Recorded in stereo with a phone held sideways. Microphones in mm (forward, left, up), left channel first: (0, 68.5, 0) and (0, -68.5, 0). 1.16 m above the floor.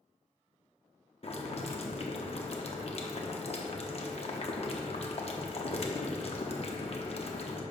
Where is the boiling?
50° left (ahead or behind), 0.8 m.